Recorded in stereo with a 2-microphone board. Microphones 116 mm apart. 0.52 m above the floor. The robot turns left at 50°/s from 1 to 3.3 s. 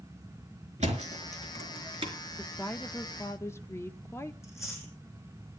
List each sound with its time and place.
0.8 s a thud: 80° right, 3.5 m; by 2.1 s 45° right (ahead or behind), 3.5 m
2.4 s a woman speaking: 10° left (ahead or behind), 0.8 m; by 4.3 s 20° left (ahead or behind), 0.8 m
4.4 s chewing: 25° left (ahead or behind), 10 m